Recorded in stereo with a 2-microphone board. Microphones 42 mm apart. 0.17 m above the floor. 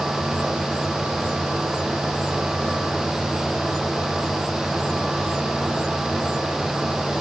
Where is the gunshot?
I don't hear a gunshot.